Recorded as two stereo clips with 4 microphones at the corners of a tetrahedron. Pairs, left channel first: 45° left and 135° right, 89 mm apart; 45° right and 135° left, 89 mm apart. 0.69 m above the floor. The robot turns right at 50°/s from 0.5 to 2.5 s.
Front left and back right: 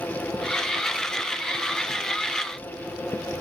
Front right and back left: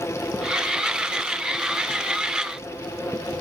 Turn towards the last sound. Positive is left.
No sound to turn to.